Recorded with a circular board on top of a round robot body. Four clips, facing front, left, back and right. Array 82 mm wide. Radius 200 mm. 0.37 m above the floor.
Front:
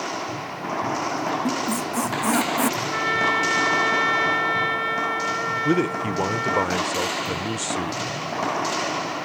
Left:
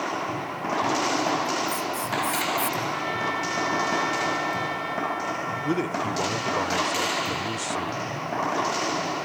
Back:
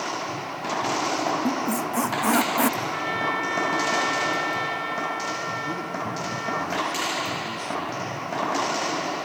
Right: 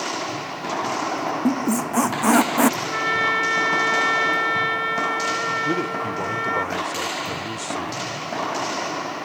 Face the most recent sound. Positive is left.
turn(degrees=0)